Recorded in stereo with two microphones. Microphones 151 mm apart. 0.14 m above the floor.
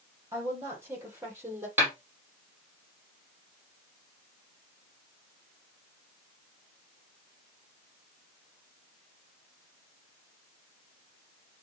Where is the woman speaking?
20° right (ahead or behind), 5 m; by 1.7 s 15° right (ahead or behind), 4 m.